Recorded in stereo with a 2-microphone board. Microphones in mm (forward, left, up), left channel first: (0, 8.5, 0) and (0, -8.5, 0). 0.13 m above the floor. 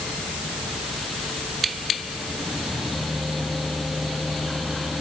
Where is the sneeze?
I don't hear a sneeze.